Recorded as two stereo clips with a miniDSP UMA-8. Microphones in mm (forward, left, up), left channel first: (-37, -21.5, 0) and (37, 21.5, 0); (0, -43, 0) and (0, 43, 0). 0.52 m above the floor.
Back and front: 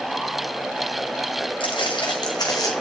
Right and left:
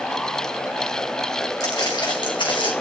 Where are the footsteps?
130° right, 2.5 m; by 2.8 s 100° right, 2 m.